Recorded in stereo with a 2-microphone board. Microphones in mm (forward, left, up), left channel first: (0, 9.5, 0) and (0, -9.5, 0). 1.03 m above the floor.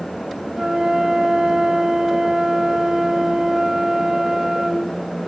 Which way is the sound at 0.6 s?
40° right (ahead or behind).